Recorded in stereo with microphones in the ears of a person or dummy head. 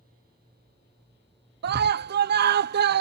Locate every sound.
1.6 s a scream: 55° right (ahead or behind)